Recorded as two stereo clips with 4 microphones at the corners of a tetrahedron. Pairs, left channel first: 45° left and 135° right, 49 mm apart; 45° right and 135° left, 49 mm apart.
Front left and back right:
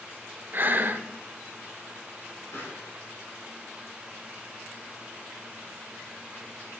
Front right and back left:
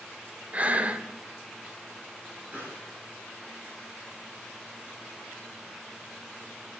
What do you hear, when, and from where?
0.5 s breathing: 170° right, 0.8 m
2.5 s a pop: 80° left, 5.5 m